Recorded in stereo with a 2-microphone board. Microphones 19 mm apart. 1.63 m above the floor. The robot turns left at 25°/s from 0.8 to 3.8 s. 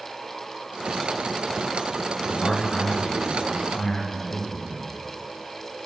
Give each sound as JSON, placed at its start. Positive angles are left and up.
{"t": 2.3, "sound": "a man speaking", "azimuth_deg": 150, "distance_m": 4.0}